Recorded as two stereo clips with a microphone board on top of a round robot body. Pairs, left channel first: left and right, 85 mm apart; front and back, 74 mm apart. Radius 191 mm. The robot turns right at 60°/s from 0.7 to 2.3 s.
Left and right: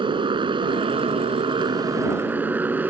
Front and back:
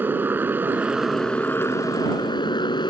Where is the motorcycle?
115° right; by 2.9 s 20° right.